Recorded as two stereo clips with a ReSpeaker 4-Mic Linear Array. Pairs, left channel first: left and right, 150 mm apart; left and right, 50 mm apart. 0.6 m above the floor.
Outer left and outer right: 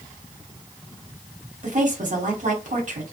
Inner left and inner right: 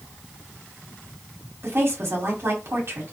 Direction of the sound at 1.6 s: 55° right (ahead or behind).